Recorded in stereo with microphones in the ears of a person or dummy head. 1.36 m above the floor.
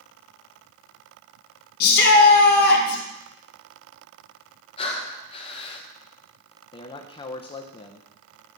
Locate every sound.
1.8 s a shout: 55° left (ahead or behind), 1.3 m
4.8 s breathing: 30° left (ahead or behind), 1.0 m
6.7 s a man speaking: 30° left (ahead or behind), 0.6 m